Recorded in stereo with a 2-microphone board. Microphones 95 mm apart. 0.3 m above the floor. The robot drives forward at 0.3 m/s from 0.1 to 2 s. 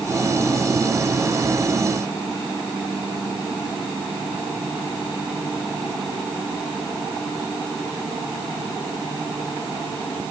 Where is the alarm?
No alarm in this recording.